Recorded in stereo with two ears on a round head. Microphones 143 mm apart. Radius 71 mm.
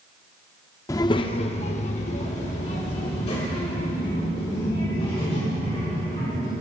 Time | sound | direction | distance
0.9 | a child speaking | 20° left (ahead or behind) | 0.5 m